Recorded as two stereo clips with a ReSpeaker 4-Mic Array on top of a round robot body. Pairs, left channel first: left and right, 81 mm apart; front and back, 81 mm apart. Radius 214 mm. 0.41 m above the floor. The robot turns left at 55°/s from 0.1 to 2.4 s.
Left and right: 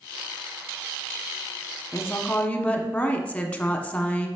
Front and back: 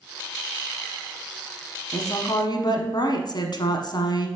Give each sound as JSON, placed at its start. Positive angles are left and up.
{"t": 1.9, "sound": "a woman speaking", "azimuth_deg": 45, "distance_m": 1.3}